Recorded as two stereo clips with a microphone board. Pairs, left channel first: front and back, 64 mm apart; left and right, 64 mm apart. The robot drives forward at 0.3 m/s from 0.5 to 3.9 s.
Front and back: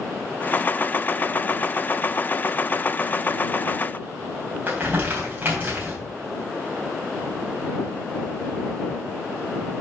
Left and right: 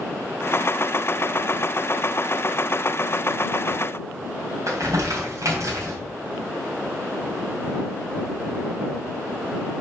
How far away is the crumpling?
About 3.5 m.